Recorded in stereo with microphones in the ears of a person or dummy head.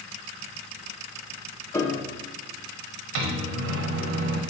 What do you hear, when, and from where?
1.7 s a piano: 20° left (ahead or behind), 0.7 m
3.1 s a microwave: 65° right (ahead or behind), 1.1 m